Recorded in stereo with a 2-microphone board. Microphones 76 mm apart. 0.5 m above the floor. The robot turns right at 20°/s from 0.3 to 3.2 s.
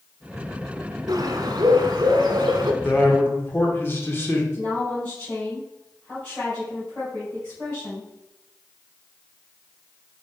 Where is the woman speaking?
25° left (ahead or behind), 3 m.